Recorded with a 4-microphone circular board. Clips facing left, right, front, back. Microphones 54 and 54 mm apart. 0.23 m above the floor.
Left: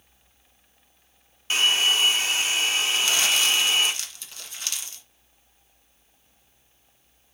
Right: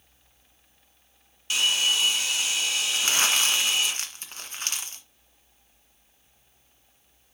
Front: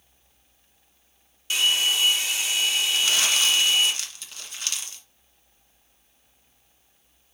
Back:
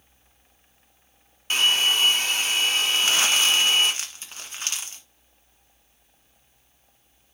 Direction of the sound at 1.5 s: 140° left.